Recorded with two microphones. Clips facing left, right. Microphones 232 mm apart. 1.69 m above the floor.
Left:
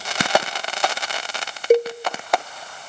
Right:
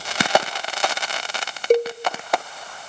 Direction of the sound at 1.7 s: 10° left (ahead or behind).